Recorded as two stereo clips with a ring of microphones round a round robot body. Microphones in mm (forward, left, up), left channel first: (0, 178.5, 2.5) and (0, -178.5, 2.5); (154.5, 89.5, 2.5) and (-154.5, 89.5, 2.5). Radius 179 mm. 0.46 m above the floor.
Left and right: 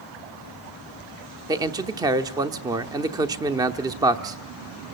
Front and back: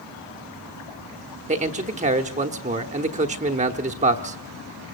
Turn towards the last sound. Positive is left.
turn(degrees=-155)